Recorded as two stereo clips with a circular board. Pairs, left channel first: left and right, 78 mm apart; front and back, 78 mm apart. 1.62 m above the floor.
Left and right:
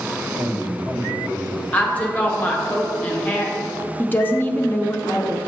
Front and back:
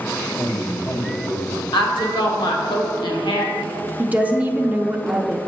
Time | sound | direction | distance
0.4 | a man speaking | 75° right | 1.9 m
1.7 | a woman speaking | 20° left | 1.2 m
4.0 | a woman speaking | 125° left | 0.6 m